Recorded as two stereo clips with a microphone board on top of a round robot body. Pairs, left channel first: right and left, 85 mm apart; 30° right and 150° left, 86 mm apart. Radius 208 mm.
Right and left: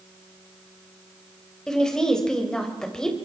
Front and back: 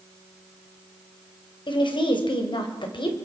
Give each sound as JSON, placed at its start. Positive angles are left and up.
{"t": 1.7, "sound": "a woman speaking", "azimuth_deg": -10, "distance_m": 3.0}